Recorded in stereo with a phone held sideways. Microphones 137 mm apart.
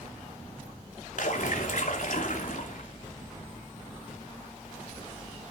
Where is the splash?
70° left (ahead or behind), 2.5 m.